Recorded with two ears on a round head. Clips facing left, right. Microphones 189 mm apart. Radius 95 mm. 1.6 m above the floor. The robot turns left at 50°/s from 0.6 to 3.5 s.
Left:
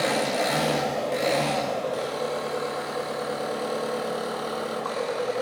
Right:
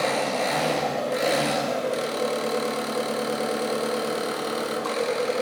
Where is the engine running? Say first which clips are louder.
Even; 20° left, 1.1 m; by 5.4 s 125° right, 1.1 m.